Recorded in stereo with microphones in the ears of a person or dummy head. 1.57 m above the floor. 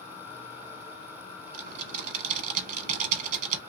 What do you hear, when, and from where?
1.5 s typing on a keyboard: 50° right (ahead or behind), 1.0 m